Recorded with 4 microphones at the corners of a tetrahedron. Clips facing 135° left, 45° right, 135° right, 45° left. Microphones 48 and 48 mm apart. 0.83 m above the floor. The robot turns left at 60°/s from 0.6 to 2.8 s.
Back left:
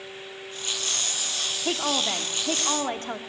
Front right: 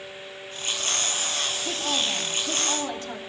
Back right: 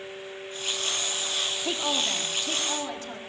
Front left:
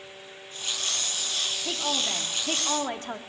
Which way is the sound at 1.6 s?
160° left.